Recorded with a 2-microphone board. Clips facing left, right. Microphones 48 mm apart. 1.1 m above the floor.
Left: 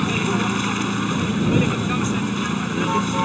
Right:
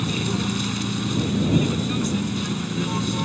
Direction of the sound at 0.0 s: 40° left (ahead or behind).